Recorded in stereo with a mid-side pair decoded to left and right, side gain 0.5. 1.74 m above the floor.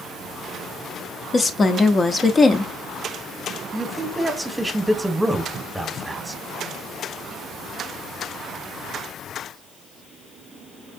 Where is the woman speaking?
30° left, 0.9 m.